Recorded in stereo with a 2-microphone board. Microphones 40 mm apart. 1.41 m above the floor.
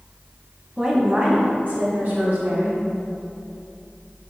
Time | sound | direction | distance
0.8 | a woman speaking | 15° right (ahead or behind) | 1.9 m